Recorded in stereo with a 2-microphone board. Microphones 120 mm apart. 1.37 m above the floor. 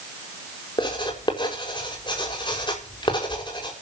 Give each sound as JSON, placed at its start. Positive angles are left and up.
{"t": 0.8, "sound": "writing", "side_deg": 40, "distance_m": 5.0}